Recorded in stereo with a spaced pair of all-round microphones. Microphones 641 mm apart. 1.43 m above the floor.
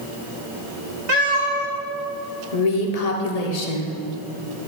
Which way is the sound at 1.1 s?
50° right (ahead or behind).